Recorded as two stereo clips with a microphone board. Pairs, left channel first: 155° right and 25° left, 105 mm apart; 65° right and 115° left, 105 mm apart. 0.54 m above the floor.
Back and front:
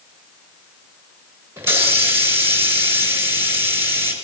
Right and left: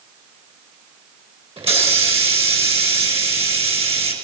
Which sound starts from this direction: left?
A hiss, at 1.6 s.